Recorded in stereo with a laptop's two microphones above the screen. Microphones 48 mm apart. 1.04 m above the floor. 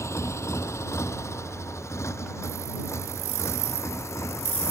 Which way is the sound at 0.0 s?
80° left.